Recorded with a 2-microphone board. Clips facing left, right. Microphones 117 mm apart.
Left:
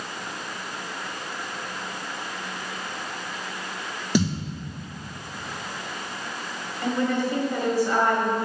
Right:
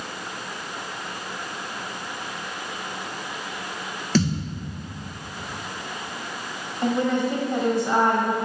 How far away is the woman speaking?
About 1.4 m.